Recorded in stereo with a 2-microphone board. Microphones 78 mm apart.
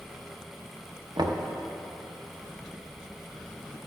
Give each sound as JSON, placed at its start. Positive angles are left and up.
{"t": 1.2, "sound": "knocking", "side_deg": -60, "distance_m": 0.6}